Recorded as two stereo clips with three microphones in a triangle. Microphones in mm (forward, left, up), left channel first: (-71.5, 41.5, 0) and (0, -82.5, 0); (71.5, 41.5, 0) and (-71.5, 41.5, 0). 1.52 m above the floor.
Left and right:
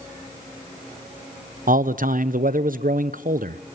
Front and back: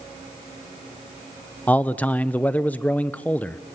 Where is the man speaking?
80° right, 0.8 m.